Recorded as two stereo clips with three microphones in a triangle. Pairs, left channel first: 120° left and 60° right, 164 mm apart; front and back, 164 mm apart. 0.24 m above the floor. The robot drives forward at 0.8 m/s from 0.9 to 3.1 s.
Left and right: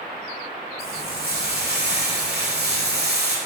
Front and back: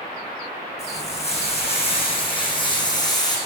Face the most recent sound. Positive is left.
turn(degrees=-65)